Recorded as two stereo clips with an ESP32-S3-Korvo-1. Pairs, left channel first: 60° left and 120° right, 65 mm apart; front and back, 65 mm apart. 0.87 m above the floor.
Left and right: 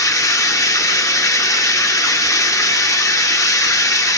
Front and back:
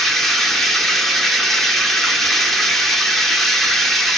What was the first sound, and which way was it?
Running water, 85° left.